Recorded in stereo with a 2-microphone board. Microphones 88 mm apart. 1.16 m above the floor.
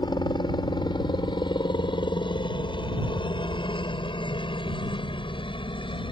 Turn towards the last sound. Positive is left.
turn(degrees=75)  # may be behind; listen again after turning